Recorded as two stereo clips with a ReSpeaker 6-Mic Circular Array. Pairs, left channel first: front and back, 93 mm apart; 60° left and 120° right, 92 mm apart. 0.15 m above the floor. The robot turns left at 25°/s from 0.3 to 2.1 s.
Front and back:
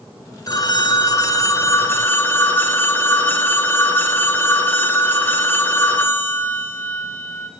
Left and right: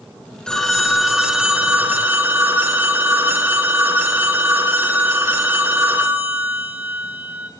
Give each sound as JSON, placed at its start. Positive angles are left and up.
{"t": 0.5, "sound": "a phone ringing", "azimuth_deg": -20, "distance_m": 1.0}